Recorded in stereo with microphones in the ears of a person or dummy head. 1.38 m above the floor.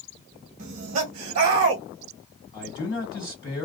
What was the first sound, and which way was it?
Laughter, 50° right (ahead or behind).